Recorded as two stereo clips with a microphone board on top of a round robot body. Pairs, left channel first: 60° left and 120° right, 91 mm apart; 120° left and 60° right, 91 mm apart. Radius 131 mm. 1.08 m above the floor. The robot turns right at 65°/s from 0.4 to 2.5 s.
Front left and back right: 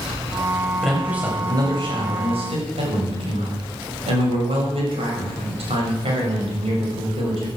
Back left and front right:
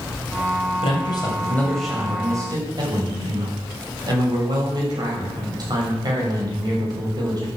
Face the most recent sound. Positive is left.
turn(degrees=-105)